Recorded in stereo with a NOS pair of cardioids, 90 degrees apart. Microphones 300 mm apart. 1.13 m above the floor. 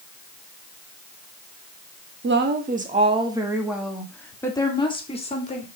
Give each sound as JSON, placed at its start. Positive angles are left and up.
{"t": 2.2, "sound": "a woman speaking", "azimuth_deg": -40, "distance_m": 1.8}